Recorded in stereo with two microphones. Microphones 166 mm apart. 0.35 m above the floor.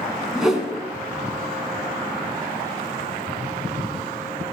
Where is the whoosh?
5° right (ahead or behind), 2.5 m.